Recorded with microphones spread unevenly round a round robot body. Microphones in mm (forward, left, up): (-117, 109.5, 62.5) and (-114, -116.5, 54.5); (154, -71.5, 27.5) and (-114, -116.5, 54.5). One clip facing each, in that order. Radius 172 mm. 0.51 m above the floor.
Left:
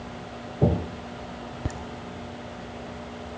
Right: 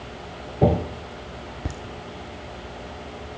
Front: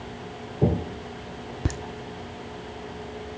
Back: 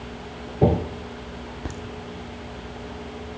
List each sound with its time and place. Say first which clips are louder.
1.6 s laughter: even, front 5 dB; 5° left, 1.1 m